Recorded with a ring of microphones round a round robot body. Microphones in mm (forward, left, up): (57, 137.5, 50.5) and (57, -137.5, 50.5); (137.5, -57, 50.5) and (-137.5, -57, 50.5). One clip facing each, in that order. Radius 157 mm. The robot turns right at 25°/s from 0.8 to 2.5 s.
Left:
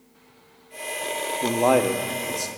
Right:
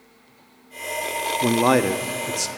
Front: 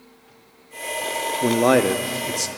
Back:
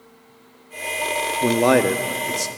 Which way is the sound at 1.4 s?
95° right.